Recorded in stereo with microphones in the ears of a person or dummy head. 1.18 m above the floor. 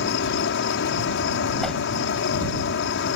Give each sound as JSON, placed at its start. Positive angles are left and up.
{"t": 0.0, "sound": "an insect", "side_deg": 65}
{"t": 1.6, "sound": "a whoosh", "side_deg": 5}